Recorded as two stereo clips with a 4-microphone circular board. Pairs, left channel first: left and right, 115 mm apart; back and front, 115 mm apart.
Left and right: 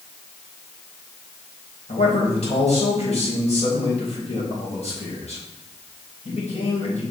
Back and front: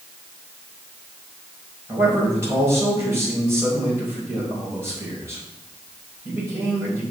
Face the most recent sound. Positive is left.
turn(degrees=70)